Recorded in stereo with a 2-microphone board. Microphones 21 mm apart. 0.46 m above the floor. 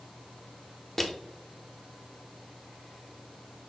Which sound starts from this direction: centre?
Crushing, at 1.0 s.